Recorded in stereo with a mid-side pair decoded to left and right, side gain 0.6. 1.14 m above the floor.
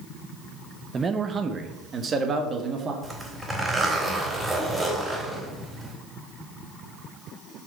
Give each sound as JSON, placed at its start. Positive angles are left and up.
{"t": 0.9, "sound": "a man speaking", "azimuth_deg": -30, "distance_m": 0.9}
{"t": 3.0, "sound": "a zipper", "azimuth_deg": -15, "distance_m": 4.0}